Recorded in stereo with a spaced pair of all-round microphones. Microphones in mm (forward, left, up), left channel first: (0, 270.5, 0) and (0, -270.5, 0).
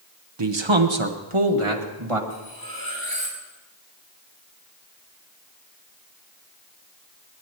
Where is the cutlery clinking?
40° left (ahead or behind), 4.5 m.